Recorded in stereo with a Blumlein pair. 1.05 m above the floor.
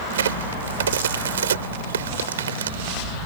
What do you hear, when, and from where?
0.1 s a crack: 65° right